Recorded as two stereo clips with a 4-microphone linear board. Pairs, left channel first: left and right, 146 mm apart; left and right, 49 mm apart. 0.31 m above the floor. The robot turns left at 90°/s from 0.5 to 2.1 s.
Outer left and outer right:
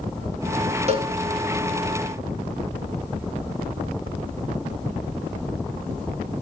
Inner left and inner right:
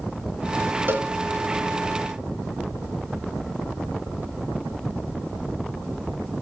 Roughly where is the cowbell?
Right.